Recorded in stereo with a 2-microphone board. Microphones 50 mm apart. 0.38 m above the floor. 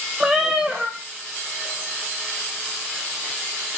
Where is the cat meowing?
15° right (ahead or behind), 1.3 m.